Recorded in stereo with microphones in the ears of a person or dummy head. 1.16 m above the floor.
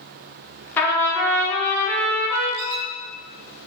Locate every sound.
0.8 s a trumpet: 10° left (ahead or behind), 1.0 m
2.6 s a squeak: 50° right (ahead or behind), 0.6 m